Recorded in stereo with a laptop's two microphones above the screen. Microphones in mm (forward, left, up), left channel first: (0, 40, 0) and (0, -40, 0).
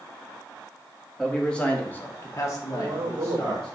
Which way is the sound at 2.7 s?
55° right (ahead or behind).